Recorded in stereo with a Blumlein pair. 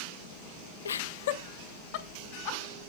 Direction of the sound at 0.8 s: 70° left.